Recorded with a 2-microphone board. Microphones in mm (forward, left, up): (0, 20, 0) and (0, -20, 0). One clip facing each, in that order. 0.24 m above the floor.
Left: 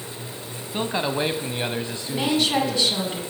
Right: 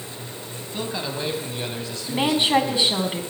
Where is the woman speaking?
25° right (ahead or behind), 2 m.